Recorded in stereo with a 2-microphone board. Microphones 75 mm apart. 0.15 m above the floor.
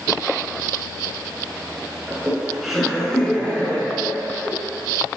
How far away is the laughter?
About 1.5 m.